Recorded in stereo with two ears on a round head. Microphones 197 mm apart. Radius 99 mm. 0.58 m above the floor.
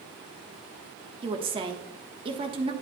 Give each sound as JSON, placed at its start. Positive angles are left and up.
{"t": 1.2, "sound": "a woman speaking", "side_deg": -25, "distance_m": 1.3}